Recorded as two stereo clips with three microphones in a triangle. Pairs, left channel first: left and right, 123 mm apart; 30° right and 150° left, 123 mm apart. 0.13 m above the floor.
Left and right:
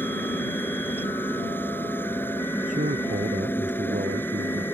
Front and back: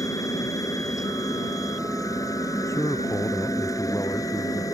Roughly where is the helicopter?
Ahead.